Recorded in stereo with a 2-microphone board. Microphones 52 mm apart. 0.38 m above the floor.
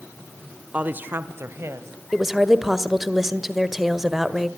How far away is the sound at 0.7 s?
About 0.8 m.